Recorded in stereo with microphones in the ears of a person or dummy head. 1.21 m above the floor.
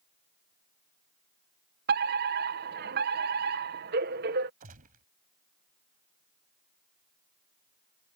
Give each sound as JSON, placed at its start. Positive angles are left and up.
{"t": 1.9, "sound": "a fire alarm", "side_deg": -50}
{"t": 4.6, "sound": "a gunshot", "side_deg": -40}